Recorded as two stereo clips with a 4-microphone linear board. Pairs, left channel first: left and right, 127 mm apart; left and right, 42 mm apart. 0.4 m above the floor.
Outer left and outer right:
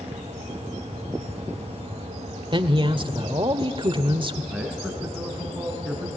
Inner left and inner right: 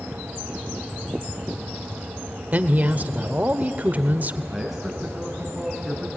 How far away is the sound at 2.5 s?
About 1.1 m.